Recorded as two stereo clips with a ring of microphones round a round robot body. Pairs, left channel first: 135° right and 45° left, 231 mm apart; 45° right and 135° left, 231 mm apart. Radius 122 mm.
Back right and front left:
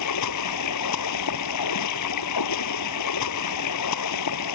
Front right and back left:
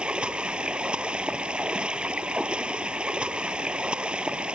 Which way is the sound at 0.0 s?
140° right.